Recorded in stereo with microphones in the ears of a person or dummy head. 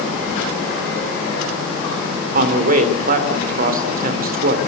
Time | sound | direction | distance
2.3 | a man speaking | 50° right (ahead or behind) | 3.5 m